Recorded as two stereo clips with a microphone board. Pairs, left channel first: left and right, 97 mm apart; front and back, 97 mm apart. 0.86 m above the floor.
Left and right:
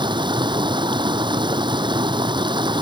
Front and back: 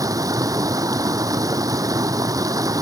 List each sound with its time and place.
0.0 s running water: 125° right